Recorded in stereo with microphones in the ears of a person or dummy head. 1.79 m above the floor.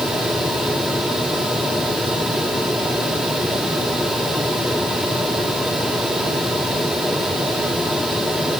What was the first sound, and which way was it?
Only background noise.